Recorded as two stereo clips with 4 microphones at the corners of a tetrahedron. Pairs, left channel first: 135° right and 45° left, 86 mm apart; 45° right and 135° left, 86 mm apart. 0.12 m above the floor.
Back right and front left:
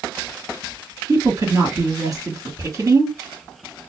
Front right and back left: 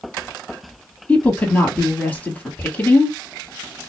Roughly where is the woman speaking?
Ahead.